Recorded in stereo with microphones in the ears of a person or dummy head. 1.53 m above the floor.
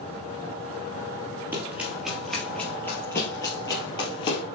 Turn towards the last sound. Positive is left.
turn(degrees=35)  # may be behind; listen again after turning